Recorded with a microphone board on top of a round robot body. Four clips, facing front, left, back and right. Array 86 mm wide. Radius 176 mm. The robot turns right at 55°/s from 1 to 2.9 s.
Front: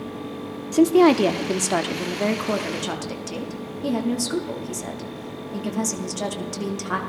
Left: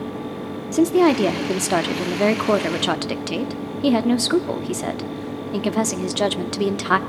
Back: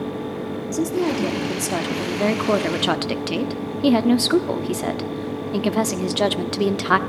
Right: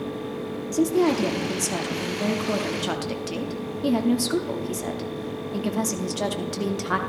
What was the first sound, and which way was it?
A woman speaking, 35° left.